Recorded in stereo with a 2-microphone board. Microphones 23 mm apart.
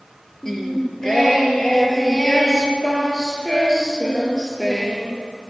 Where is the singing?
20° left (ahead or behind), 3.5 m.